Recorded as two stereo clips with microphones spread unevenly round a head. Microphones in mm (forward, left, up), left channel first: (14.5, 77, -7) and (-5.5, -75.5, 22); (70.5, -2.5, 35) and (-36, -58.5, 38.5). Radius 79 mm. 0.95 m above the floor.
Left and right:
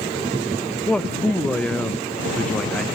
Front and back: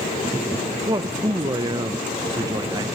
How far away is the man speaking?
About 0.6 m.